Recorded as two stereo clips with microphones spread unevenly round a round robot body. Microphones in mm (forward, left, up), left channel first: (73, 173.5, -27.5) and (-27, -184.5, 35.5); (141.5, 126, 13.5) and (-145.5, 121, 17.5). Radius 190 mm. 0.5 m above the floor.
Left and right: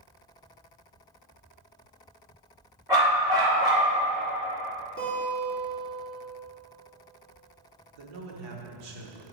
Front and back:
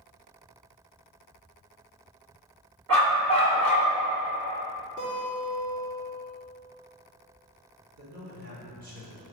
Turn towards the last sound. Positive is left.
turn(degrees=-120)